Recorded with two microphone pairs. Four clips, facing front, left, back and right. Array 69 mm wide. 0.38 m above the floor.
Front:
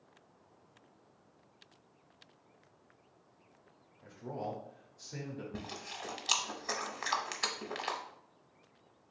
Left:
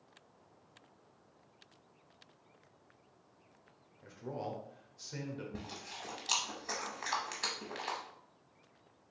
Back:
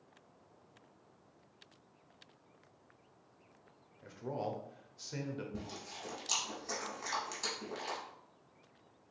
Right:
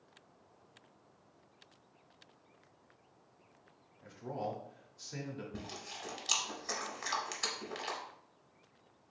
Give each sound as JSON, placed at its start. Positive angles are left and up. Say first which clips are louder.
{"t": 4.0, "sound": "a man speaking", "louder": "right 2 dB, back 1 dB", "azimuth_deg": -175, "distance_m": 0.9}
{"t": 5.5, "sound": "chewing", "louder": "even, front 2 dB", "azimuth_deg": 15, "distance_m": 0.8}